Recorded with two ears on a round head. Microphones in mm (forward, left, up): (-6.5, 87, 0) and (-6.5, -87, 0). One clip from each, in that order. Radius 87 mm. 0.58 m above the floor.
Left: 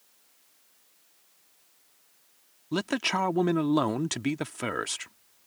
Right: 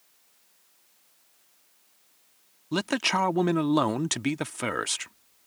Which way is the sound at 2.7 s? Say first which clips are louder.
Right 2 dB; 15° right (ahead or behind).